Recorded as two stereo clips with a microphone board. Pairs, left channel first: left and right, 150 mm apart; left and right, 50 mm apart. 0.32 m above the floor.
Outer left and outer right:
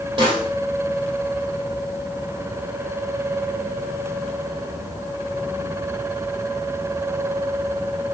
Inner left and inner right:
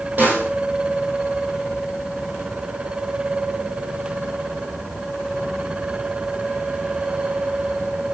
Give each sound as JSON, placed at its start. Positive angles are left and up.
{"t": 0.2, "sound": "a snare drum", "side_deg": -35, "distance_m": 6.0}